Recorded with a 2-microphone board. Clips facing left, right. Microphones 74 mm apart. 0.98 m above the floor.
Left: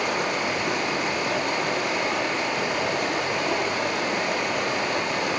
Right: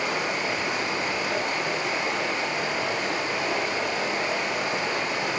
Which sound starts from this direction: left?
Running water, at 0.0 s.